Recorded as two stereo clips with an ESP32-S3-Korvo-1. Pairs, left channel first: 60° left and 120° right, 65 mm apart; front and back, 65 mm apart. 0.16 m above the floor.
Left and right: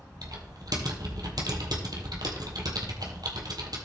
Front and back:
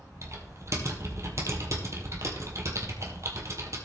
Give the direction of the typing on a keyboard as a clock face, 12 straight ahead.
5 o'clock.